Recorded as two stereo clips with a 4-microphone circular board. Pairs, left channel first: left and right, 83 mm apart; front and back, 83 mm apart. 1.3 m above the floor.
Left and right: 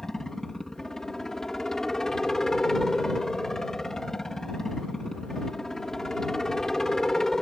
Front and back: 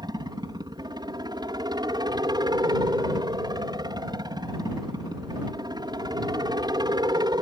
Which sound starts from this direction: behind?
A helicopter, at 0.0 s.